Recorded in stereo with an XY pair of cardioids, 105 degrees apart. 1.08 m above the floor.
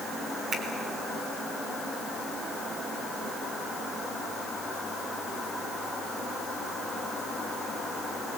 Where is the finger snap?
55° right, 4 m.